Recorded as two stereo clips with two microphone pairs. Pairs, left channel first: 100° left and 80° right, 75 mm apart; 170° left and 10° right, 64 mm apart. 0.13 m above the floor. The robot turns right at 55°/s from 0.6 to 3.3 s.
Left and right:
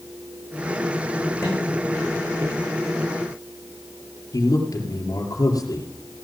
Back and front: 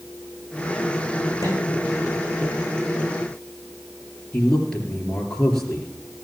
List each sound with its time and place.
1.4 s a microwave: 170° left, 8 m; by 1.6 s straight behind, 8 m
4.3 s a man speaking: 90° left, 3 m